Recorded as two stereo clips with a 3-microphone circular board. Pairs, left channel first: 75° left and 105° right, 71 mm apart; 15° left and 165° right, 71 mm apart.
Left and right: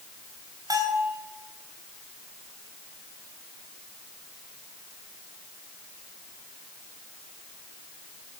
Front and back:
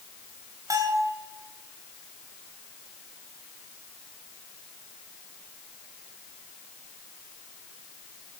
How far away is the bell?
About 4 m.